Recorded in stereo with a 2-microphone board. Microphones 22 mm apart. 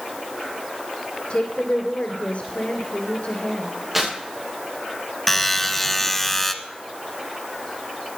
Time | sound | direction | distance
1.3 | a woman speaking | 65° left (ahead or behind) | 2.5 m
3.9 | tearing paper | 15° right (ahead or behind) | 7.5 m
5.3 | a buzzer | 10° left (ahead or behind) | 1.0 m